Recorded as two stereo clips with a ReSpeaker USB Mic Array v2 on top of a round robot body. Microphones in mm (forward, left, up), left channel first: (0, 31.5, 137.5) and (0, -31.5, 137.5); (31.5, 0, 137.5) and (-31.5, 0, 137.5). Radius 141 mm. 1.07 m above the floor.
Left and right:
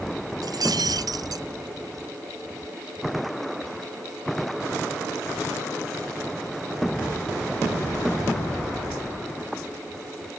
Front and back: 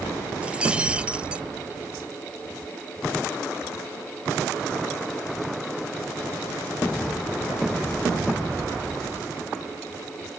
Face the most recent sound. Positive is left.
turn(degrees=-105)